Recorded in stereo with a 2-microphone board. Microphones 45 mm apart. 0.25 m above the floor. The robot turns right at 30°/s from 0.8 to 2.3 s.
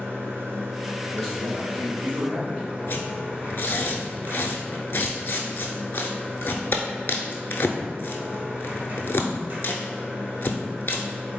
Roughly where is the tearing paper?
Left.